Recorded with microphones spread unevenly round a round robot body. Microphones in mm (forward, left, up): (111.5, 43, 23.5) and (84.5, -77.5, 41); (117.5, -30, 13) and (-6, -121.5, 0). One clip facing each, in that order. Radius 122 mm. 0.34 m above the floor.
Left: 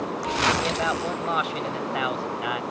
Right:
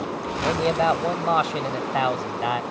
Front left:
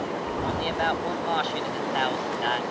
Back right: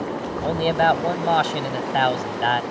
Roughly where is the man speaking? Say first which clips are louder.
Right 5 dB, back right 10 dB; behind.